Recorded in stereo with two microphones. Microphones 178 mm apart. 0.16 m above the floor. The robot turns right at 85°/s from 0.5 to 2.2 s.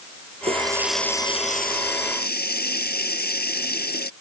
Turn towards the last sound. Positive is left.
turn(degrees=105)